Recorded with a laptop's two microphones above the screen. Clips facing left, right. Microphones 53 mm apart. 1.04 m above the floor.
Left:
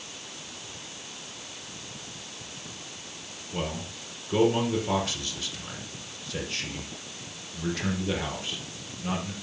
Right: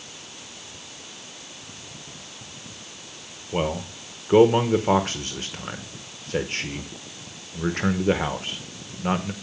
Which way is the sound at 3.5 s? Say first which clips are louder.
Right 7 dB; 45° right (ahead or behind).